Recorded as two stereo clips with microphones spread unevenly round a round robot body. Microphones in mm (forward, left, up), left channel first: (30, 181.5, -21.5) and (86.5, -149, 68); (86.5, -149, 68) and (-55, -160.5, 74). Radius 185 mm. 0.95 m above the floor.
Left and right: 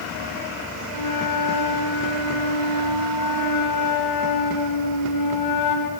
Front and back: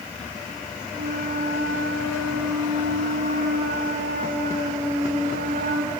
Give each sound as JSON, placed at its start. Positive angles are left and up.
{"t": 0.9, "sound": "a flute", "azimuth_deg": 135, "distance_m": 1.9}